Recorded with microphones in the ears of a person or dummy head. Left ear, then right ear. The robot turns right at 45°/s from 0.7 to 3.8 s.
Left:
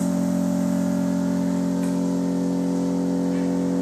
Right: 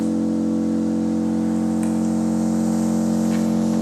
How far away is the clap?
No clap in this recording.